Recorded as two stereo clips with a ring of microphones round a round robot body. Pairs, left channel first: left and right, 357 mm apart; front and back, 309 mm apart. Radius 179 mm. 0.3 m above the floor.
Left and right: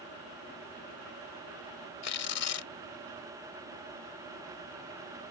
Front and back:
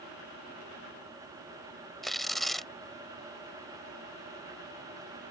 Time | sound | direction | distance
2.0 | tearing paper | 90° left | ?